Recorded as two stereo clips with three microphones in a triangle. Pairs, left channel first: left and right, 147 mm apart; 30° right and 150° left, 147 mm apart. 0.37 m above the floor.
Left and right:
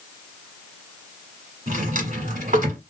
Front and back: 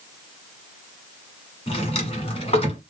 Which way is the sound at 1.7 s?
75° right.